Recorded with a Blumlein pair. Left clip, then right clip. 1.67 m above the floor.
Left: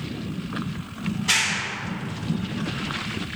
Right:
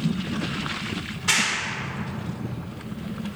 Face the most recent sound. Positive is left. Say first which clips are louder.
# left 1 dB
turn(degrees=-25)